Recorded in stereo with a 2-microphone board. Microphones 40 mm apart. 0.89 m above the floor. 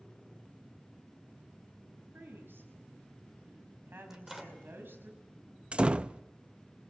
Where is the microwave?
15° right (ahead or behind), 2.5 m.